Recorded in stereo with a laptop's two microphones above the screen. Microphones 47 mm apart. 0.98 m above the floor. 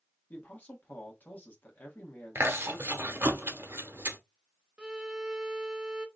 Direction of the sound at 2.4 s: 60° right (ahead or behind).